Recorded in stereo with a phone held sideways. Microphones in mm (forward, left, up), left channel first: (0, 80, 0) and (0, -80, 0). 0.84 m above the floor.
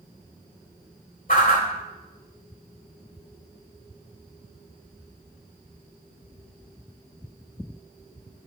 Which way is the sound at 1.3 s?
60° left (ahead or behind).